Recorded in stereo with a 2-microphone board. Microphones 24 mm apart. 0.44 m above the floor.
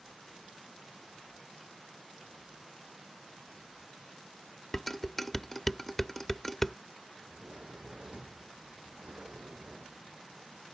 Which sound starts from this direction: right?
A sliding door, at 7.2 s.